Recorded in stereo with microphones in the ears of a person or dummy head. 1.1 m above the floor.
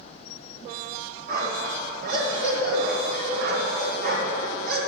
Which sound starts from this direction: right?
A dog barking, at 1.3 s.